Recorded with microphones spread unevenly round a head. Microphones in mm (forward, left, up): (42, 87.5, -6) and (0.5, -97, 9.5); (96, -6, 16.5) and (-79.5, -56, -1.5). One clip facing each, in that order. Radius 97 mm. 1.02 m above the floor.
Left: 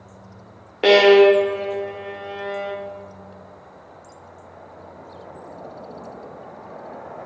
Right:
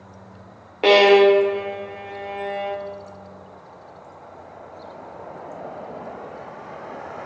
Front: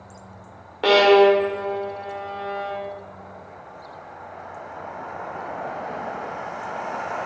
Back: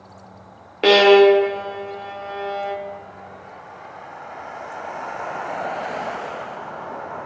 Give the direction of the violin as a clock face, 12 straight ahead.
7 o'clock.